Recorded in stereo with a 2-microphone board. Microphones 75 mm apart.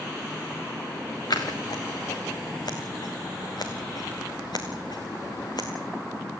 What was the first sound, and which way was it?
Scissors, 65° left (ahead or behind).